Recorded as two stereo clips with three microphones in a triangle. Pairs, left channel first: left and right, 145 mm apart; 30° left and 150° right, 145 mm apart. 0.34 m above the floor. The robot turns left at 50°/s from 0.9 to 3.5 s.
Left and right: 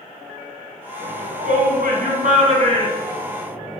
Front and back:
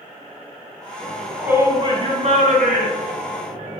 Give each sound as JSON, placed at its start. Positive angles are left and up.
{"t": 1.0, "sound": "a shout", "azimuth_deg": -50, "distance_m": 3.0}